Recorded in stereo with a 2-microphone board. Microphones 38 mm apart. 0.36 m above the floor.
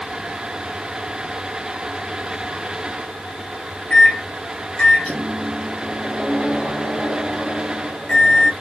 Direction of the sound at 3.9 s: 35° left (ahead or behind).